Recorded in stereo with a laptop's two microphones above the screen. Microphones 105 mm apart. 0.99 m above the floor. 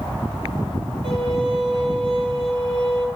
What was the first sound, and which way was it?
A violin, 75° right (ahead or behind).